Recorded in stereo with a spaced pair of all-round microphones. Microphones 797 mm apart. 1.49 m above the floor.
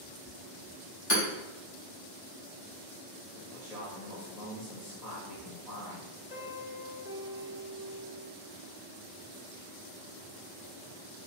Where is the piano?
50° left (ahead or behind), 1.0 m.